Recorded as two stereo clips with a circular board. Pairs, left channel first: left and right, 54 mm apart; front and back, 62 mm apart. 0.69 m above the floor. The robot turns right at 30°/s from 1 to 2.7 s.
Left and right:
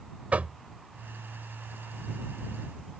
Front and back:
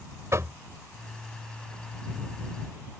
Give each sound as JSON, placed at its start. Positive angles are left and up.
{"t": 0.3, "sound": "knocking", "azimuth_deg": -150}